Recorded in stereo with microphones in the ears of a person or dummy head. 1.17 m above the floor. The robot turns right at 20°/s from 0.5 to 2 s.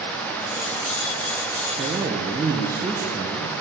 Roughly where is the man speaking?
Centre.